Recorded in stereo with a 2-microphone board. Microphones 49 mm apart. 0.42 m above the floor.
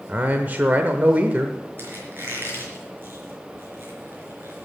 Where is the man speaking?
40° right (ahead or behind), 1.0 m.